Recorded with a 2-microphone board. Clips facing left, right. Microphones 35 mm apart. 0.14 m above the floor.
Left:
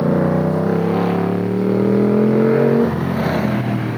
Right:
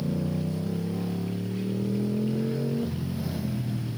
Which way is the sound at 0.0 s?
65° left (ahead or behind).